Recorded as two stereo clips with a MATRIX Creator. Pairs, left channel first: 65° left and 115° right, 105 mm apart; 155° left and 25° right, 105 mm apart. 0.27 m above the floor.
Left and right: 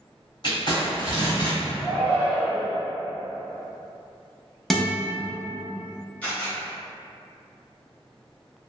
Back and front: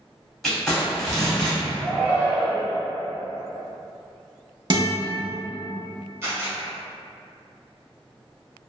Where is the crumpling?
75° left, 1.3 m.